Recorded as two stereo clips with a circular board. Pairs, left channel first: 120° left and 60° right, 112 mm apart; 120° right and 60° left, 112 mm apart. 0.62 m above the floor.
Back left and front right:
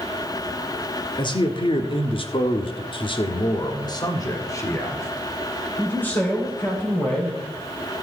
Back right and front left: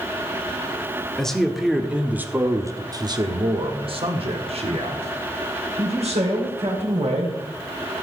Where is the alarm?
No alarm in this recording.